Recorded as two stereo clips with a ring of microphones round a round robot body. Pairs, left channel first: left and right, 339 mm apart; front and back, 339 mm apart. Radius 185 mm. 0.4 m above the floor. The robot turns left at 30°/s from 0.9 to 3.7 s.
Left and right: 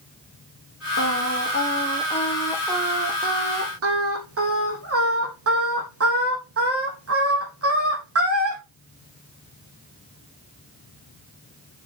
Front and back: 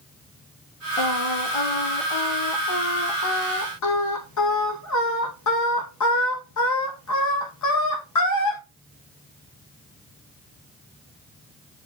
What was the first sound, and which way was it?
Singing, 40° left.